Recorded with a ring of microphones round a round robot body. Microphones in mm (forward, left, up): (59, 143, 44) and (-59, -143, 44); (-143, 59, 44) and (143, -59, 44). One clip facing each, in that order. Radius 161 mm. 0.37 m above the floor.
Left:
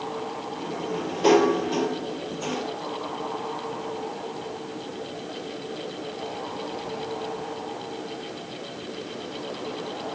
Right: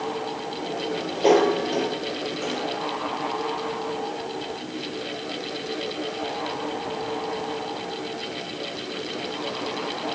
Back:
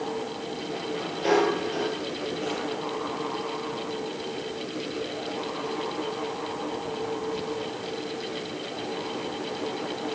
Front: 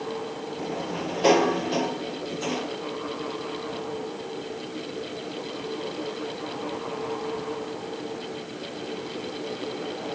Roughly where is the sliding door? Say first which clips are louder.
Right 1 dB, front 2 dB; ahead.